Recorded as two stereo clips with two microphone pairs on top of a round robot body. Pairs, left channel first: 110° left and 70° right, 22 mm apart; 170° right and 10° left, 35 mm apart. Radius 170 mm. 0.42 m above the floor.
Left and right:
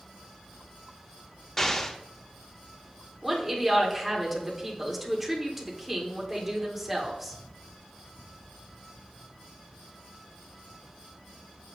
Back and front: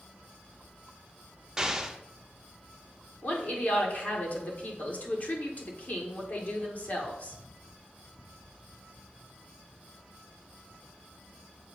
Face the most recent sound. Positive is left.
turn(degrees=-155)